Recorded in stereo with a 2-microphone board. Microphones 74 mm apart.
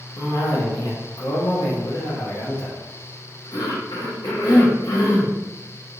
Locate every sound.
0.2 s a cough: 65° left (ahead or behind), 0.9 m